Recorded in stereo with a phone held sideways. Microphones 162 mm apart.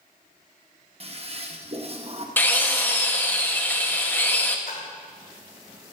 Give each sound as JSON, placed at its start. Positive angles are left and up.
{"t": 1.0, "sound": "a toilet flushing", "side_deg": -40, "distance_m": 1.0}
{"t": 2.4, "sound": "a drill", "side_deg": 15, "distance_m": 1.1}
{"t": 4.7, "sound": "a splash", "side_deg": 65, "distance_m": 2.5}